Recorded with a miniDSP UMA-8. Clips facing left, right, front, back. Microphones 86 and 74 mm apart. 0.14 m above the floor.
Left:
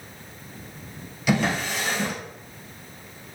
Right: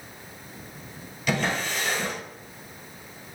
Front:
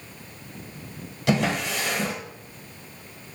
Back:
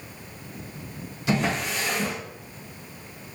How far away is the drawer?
About 1.4 m.